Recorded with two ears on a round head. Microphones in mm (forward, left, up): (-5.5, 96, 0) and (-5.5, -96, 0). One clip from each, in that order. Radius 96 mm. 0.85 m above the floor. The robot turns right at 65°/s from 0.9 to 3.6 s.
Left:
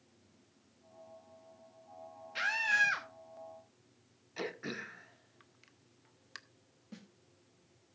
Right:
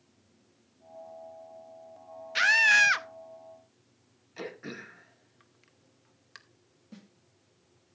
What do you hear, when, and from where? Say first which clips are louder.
2.4 s a scream: right 9 dB; 125° right, 1.0 m; by 3.1 s 75° right, 1.0 m
4.4 s throat clearing: even; 15° left (ahead or behind), 0.7 m
6.9 s a snare drum: right 1 dB; 10° left (ahead or behind), 1.6 m